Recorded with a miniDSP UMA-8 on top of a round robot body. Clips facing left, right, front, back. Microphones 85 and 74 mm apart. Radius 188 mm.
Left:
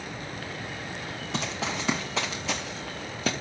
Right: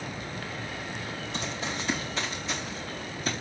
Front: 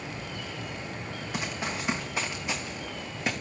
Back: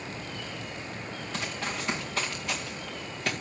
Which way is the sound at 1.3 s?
80° left.